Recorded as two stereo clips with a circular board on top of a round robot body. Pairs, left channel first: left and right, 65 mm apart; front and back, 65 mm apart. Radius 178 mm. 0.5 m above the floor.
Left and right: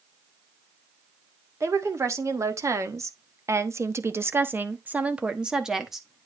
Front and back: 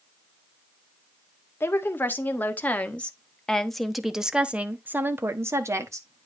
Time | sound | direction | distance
1.6 | a woman speaking | 55° right | 2 m